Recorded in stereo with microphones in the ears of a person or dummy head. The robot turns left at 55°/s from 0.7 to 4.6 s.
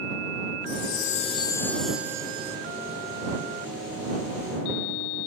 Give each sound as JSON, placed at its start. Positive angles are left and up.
{"t": 0.7, "sound": "a chime", "azimuth_deg": 65}